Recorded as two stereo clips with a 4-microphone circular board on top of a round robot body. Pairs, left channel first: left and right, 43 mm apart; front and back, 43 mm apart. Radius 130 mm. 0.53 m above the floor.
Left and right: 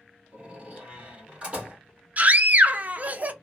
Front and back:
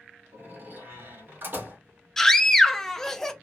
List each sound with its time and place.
0.3 s a door slam: 150° right, 1.6 m
2.2 s a scream: 75° right, 0.8 m